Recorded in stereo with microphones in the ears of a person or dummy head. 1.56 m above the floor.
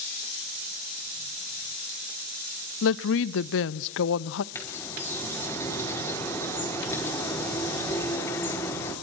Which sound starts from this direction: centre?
A bird, at 4.5 s.